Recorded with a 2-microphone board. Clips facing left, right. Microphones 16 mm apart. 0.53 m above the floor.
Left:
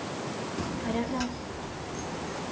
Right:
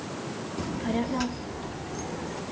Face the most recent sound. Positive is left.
turn(degrees=-15)  # may be behind; listen again after turning